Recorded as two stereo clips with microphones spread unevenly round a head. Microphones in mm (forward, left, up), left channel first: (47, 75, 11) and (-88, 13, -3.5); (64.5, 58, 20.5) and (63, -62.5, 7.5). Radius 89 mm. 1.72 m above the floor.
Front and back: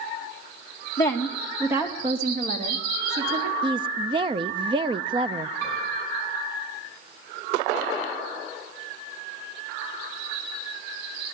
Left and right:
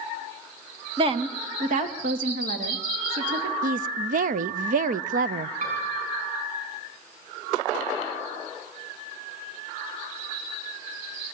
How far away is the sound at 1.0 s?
About 1.8 m.